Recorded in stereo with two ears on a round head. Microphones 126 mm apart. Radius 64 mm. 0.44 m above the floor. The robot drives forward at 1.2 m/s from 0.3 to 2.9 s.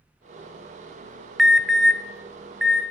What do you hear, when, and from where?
1.4 s an alarm: centre (ahead or behind), 0.7 m